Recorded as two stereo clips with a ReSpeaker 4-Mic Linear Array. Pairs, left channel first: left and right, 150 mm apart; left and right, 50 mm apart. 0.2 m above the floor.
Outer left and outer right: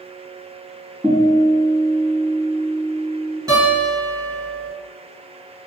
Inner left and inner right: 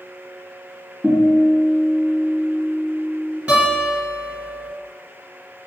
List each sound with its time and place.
1.0 s a guitar: 10° right (ahead or behind), 1.4 m
3.5 s a guitar: 25° right (ahead or behind), 1.7 m